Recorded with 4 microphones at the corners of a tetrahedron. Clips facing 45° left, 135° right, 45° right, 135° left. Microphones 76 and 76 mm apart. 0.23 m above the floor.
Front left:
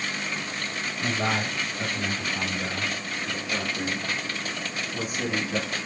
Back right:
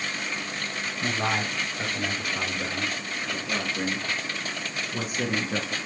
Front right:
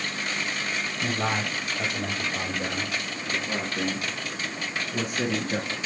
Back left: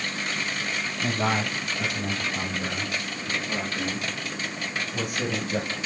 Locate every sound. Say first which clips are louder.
1.0 s a man speaking: even, back left 2 dB; 70° right, 5.5 m; by 5.8 s 90° right, 4 m